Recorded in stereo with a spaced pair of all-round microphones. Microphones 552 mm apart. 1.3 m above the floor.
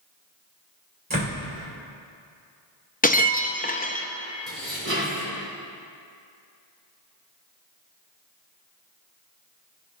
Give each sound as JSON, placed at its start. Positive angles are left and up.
{"t": 1.1, "sound": "a door slam", "side_deg": -15, "distance_m": 4.0}
{"t": 3.0, "sound": "breaking glass", "side_deg": 15, "distance_m": 0.6}
{"t": 4.5, "sound": "dishes clattering", "side_deg": -25, "distance_m": 4.0}